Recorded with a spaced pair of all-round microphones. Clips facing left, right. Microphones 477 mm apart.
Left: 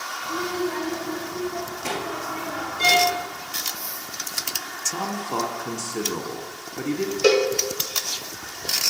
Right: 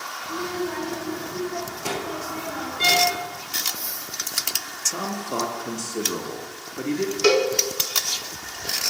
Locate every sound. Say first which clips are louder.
0.2 s a child speaking: left 2 dB; 10° left (ahead or behind), 2.5 m; by 3.3 s 50° left (ahead or behind), 3 m
2.8 s a violin: left 2 dB; 5° left (ahead or behind), 1.6 m
4.9 s a man speaking: even; 10° left (ahead or behind), 0.8 m
7.2 s a cowbell: left 1 dB; 20° right (ahead or behind), 0.6 m